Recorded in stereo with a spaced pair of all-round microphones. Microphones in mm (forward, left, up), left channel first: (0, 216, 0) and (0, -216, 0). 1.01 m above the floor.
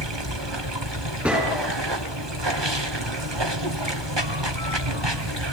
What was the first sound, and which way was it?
Running water, 75° right (ahead or behind).